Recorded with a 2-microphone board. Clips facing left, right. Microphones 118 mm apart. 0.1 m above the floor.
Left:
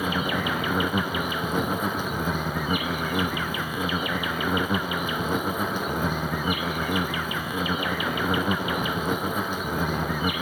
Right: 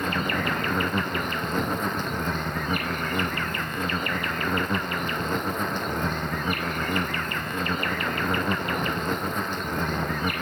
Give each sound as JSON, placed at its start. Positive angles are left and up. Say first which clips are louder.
{"t": 0.0, "sound": "an insect", "louder": "left 1 dB", "side_deg": 5}